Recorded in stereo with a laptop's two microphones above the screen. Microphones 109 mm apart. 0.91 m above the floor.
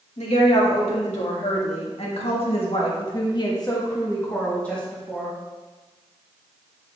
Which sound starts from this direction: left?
A woman speaking, at 0.2 s.